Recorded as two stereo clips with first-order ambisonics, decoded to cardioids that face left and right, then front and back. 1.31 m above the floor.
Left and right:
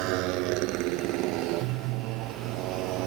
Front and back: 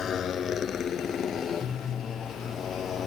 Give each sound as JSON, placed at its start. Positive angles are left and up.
{"t": 0.0, "sound": "a motorcycle", "azimuth_deg": -65}